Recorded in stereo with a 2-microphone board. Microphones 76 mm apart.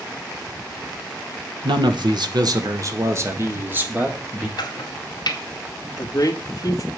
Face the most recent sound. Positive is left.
turn(degrees=40)  # may be behind; listen again after turning